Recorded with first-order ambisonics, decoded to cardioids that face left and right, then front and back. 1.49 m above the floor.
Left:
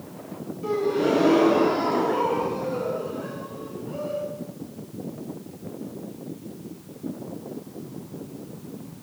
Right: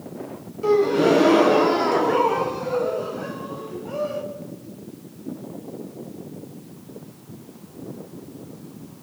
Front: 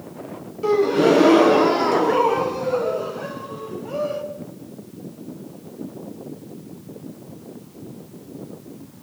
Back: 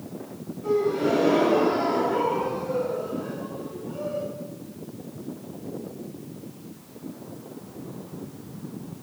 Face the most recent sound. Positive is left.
turn(degrees=-30)